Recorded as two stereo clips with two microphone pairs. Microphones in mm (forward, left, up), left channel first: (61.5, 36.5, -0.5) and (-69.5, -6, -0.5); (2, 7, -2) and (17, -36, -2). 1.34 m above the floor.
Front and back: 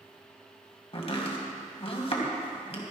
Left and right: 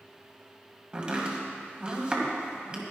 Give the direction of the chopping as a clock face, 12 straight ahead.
12 o'clock.